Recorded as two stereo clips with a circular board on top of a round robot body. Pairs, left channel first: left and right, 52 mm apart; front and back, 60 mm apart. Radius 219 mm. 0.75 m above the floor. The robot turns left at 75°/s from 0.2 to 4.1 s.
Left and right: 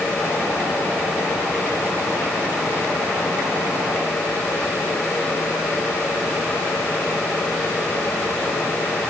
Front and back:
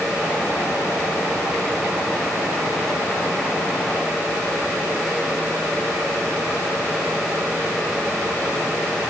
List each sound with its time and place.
Only background noise.